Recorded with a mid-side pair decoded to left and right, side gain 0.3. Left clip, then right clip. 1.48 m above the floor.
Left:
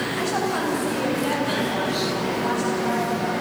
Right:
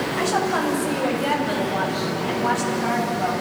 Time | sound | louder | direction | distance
0.2 | a woman speaking | right 4 dB | 40° right | 7.5 m